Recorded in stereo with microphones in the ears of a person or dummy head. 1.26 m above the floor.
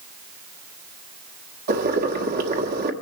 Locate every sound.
1.7 s boiling: 50° right (ahead or behind), 1.2 m